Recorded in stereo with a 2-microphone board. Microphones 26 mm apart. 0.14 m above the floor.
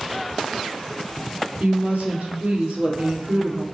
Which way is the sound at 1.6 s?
65° right (ahead or behind).